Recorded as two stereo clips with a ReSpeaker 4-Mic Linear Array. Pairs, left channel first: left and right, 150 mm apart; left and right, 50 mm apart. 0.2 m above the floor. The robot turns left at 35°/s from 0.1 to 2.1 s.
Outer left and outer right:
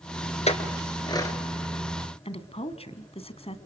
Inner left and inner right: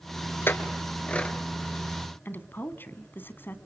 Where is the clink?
45° left (ahead or behind), 2.5 m; by 1.4 s 20° left (ahead or behind), 2.5 m.